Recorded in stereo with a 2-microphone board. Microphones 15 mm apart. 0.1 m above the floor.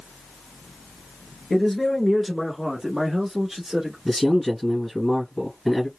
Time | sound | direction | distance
1.5 | a man speaking | 20° left (ahead or behind) | 1.4 m
4.0 | a man speaking | 15° left (ahead or behind) | 1.8 m